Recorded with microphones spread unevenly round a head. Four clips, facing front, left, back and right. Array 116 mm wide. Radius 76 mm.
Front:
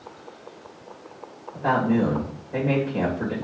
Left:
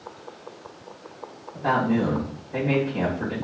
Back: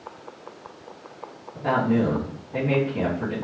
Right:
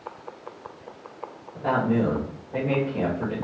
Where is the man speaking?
20° right, 1.8 m.